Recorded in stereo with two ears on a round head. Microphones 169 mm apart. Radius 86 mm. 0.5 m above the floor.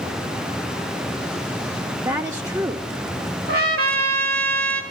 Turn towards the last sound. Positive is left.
turn(degrees=-55)  # may be behind; listen again after turning